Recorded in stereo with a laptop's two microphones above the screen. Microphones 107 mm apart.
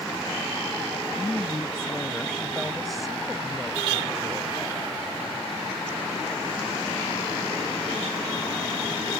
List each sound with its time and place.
0.9 s a woman speaking: 15° left (ahead or behind); by 4.8 s 20° right (ahead or behind)